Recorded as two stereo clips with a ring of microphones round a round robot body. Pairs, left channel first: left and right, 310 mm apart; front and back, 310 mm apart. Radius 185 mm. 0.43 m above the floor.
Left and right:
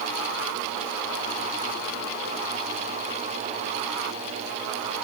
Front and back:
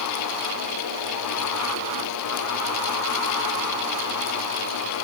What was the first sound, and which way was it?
Only background noise.